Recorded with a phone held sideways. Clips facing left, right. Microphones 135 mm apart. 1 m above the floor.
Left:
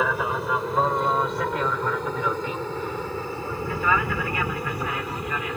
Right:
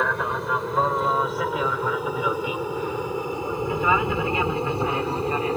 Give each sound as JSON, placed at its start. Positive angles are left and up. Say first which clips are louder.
{"t": 0.0, "sound": "an aircraft", "louder": "left 1 dB", "side_deg": 5}